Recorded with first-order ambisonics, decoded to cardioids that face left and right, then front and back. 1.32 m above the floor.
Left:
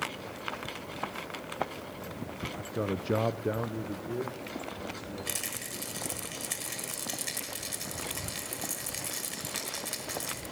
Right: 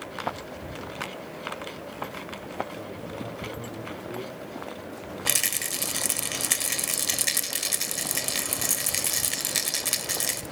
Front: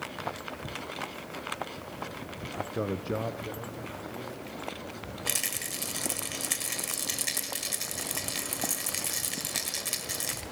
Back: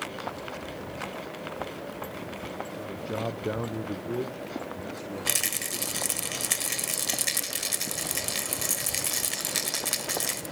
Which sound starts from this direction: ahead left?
A man speaking, at 2.5 s.